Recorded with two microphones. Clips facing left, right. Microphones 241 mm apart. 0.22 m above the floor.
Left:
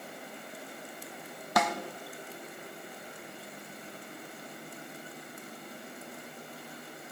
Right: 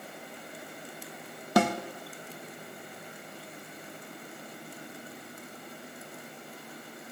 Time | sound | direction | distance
1.6 | a snare drum | 30° right (ahead or behind) | 1.2 m